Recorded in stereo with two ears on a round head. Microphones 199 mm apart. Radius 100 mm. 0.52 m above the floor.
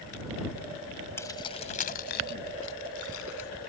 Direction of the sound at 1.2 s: 10° left (ahead or behind).